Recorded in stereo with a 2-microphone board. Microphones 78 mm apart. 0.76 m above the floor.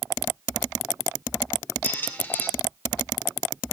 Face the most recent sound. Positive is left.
turn(degrees=25)  # may be behind; listen again after turning